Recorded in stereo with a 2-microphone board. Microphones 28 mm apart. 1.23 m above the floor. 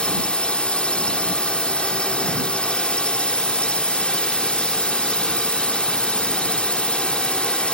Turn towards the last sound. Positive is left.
turn(degrees=35)  # may be behind; listen again after turning